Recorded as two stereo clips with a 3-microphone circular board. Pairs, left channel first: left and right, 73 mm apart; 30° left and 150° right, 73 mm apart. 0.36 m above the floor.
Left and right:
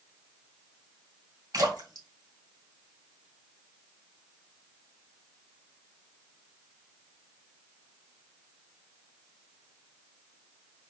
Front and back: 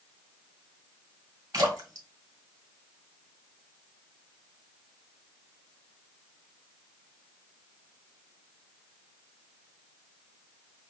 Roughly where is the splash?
Behind right.